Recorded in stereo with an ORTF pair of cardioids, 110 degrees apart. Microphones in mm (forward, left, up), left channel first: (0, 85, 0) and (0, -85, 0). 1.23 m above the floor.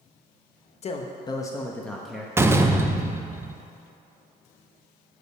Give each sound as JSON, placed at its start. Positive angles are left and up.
{"t": 0.8, "sound": "a man speaking", "azimuth_deg": 40, "distance_m": 1.1}
{"t": 2.4, "sound": "a door slam", "azimuth_deg": -15, "distance_m": 0.7}